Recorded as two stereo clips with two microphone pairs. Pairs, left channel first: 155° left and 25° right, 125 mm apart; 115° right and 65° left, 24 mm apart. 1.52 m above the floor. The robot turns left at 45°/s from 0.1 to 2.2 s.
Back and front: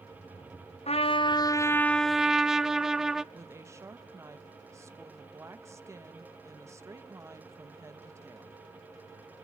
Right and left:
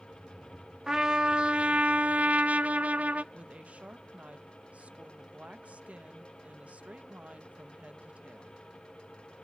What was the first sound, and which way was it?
A trumpet, 125° left.